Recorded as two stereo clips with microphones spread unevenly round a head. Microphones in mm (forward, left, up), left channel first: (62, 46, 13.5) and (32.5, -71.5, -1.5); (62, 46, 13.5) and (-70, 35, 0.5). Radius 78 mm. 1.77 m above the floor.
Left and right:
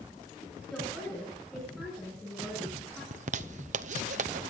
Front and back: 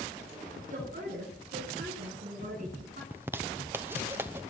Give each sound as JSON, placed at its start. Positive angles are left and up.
{"t": 0.7, "sound": "a woman speaking", "azimuth_deg": 160, "distance_m": 8.0}
{"t": 3.1, "sound": "a zipper", "azimuth_deg": -95, "distance_m": 0.7}